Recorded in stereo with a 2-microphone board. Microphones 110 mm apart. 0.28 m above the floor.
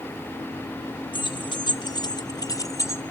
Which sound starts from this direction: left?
Keys jangling, at 1.1 s.